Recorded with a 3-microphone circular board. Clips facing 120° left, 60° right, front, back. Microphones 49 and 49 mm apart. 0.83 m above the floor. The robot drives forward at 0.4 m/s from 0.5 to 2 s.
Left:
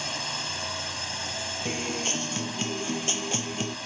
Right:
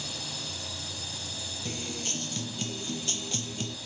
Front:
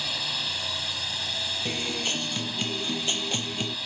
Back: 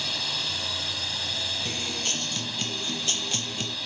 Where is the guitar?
75° left.